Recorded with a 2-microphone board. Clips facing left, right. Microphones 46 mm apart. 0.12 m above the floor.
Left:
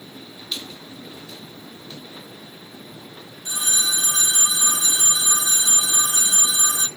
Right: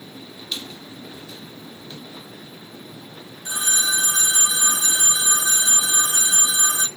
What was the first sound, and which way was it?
A squeak, 15° right (ahead or behind).